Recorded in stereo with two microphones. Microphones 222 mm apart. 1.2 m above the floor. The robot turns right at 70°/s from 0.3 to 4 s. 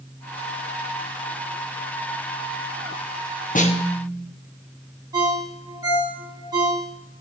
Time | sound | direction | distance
3.5 | a snare drum | 140° left | 1.0 m
5.1 | a ringtone | 15° right (ahead or behind) | 3.5 m